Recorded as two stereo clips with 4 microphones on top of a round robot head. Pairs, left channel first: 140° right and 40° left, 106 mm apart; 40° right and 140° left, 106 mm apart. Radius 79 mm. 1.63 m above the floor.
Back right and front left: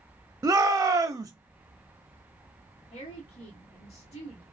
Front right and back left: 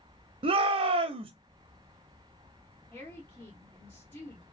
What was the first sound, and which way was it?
A shout, 105° left.